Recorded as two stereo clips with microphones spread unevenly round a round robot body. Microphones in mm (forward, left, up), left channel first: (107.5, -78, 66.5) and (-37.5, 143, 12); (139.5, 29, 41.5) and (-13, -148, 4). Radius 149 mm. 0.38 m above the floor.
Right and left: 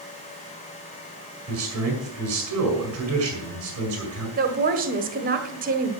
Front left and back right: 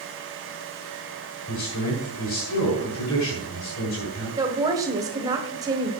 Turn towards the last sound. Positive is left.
turn(degrees=160)